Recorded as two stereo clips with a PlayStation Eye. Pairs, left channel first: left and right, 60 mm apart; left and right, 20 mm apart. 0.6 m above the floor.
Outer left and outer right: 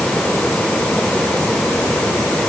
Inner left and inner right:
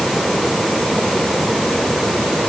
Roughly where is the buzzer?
No buzzer in this recording.